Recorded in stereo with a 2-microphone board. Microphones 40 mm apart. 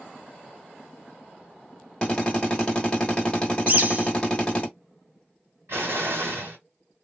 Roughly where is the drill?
Left.